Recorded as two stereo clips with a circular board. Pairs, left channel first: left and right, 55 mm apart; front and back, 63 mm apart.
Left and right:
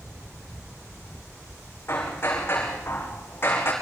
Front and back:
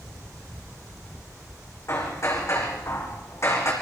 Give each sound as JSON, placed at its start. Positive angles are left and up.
{"t": 1.9, "sound": "hammering", "azimuth_deg": 40, "distance_m": 5.0}